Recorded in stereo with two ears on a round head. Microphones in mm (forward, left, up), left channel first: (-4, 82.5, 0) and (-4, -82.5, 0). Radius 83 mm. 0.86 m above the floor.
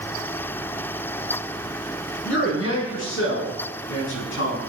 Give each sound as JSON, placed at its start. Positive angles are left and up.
{"t": 2.2, "sound": "a man speaking", "side_deg": 70, "distance_m": 9.0}